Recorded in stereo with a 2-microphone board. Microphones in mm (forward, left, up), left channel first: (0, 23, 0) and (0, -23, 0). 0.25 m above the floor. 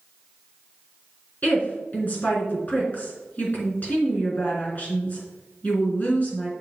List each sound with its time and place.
1.4 s a woman speaking: 40° left (ahead or behind), 3.5 m